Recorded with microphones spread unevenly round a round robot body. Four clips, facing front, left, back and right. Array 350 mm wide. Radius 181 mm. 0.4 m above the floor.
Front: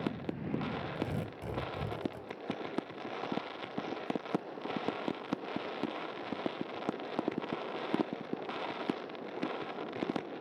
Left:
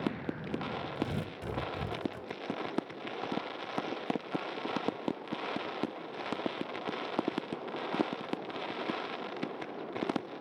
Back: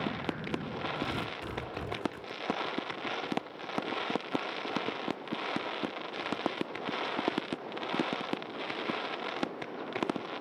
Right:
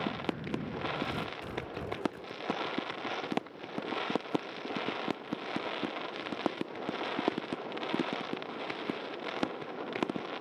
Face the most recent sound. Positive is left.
turn(degrees=50)